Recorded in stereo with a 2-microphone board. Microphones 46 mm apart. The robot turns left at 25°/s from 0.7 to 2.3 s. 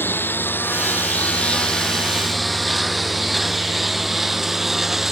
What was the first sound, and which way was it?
A lawn mower, 45° left (ahead or behind).